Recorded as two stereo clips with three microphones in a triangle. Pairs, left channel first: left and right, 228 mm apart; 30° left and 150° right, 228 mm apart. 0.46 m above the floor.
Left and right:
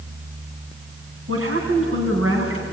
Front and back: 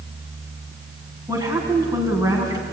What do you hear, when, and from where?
1.3 s a woman speaking: 75° right, 4.5 m